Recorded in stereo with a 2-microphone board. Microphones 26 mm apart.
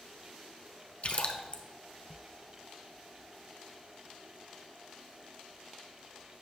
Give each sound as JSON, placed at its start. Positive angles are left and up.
{"t": 1.0, "sound": "a splash", "side_deg": 50, "distance_m": 0.9}